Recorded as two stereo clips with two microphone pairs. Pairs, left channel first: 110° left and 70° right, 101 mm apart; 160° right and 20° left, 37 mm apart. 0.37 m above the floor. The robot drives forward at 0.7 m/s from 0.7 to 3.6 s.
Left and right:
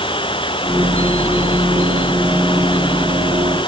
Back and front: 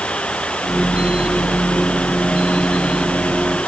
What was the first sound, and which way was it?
Running water, 140° left.